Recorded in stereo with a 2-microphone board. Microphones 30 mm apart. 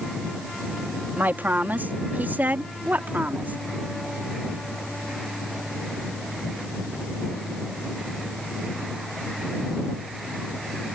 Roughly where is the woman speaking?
Right.